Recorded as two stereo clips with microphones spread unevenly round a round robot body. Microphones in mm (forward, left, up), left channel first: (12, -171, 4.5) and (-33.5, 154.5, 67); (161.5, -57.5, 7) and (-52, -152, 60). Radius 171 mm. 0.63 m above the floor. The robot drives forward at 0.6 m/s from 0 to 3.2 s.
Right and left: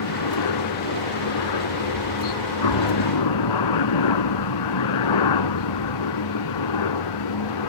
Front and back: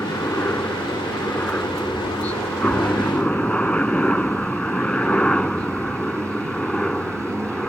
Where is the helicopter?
60° right; by 7.7 s 65° right.